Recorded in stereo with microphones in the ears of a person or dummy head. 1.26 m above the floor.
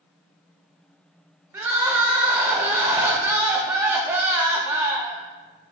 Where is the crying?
15° right (ahead or behind), 0.6 m.